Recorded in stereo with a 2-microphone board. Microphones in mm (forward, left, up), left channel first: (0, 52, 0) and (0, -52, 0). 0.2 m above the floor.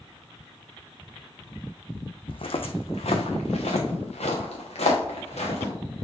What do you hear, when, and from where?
2.3 s footsteps: 55° left (ahead or behind), 0.7 m; by 5.7 s 85° left, 2.5 m